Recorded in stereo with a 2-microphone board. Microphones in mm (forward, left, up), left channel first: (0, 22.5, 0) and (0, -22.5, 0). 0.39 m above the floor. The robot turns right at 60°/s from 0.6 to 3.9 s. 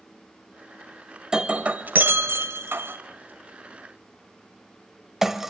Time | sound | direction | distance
1.3 | breaking glass | 15° right (ahead or behind) | 1.0 m